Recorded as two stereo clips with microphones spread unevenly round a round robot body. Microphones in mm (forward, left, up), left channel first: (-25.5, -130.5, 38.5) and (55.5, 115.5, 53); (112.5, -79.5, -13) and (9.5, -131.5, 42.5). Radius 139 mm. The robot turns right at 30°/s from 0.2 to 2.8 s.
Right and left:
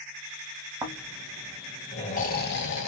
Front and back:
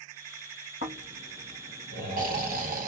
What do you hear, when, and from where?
0.8 s snoring: 150° left, 0.7 m; by 2.9 s 150° right, 0.7 m